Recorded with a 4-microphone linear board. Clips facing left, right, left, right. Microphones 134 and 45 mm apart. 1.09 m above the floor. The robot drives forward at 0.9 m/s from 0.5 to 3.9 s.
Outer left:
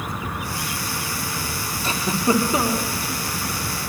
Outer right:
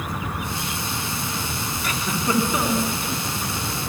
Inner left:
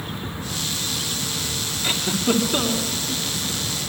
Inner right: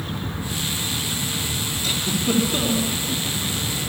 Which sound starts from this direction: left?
A giggle, at 1.8 s.